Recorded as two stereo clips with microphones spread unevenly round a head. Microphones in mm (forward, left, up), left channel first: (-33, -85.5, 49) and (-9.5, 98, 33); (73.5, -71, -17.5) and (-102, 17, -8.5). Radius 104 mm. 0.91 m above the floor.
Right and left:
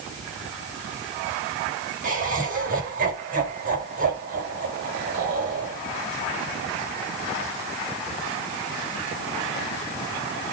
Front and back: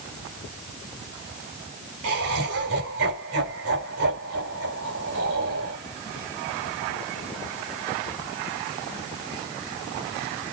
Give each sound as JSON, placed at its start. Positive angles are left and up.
{"t": 2.0, "sound": "laughter", "azimuth_deg": 125, "distance_m": 5.0}